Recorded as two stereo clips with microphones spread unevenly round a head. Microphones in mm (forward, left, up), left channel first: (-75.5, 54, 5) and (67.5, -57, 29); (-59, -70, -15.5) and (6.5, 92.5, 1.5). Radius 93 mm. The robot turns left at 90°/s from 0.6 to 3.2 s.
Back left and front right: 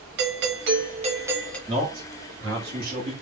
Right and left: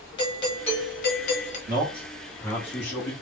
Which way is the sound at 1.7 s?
30° left.